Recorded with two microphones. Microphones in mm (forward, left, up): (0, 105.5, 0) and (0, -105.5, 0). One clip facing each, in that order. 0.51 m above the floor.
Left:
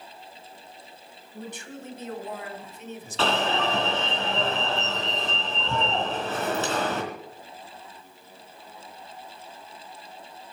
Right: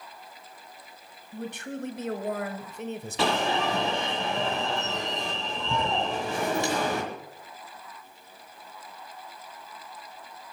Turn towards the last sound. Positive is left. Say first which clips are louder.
# left 1 dB
turn(degrees=-15)  # may be behind; listen again after turning